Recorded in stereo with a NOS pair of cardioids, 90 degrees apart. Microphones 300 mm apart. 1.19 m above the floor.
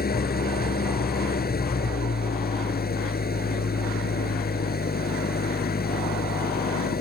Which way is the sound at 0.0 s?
30° left.